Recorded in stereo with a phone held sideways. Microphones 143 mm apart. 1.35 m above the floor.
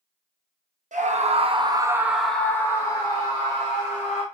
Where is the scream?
60° right (ahead or behind), 1.0 m; by 4.2 s 45° left (ahead or behind), 1.9 m.